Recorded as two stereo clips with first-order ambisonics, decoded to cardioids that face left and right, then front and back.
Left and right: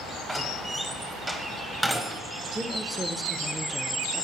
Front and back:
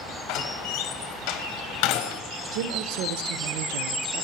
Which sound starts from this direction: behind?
A woman speaking, at 2.5 s.